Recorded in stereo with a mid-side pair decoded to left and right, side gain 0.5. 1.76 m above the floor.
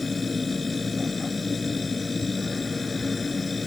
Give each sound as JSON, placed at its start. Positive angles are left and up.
{"t": 0.0, "sound": "a machine running", "azimuth_deg": 25}